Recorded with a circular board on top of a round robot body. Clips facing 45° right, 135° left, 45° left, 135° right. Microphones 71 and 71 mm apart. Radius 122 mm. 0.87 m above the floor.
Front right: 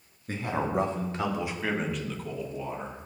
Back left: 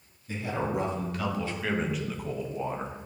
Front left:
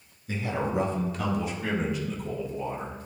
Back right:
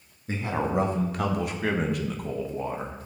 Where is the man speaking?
90° right, 1.9 m; by 3.0 s straight behind, 1.5 m.